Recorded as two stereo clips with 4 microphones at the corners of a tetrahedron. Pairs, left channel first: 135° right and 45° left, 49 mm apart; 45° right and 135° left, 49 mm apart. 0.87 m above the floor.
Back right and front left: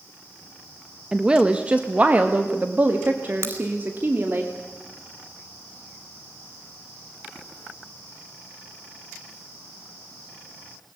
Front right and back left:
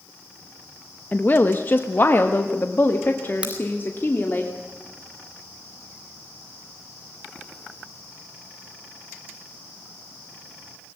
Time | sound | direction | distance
1.1 | a woman speaking | 25° right | 1.1 m
3.4 | a crack | 70° left | 4.5 m